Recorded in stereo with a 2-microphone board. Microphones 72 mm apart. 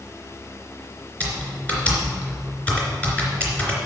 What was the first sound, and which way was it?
Typing on a keyboard, 20° left (ahead or behind).